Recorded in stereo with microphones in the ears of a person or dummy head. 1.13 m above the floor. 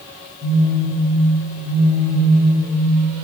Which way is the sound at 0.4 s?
40° right (ahead or behind).